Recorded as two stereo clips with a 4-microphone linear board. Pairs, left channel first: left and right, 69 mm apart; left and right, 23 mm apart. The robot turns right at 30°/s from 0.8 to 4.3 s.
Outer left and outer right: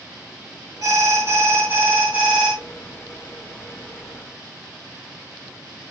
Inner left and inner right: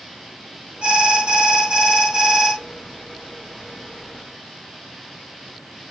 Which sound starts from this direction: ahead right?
An alarm, at 0.8 s.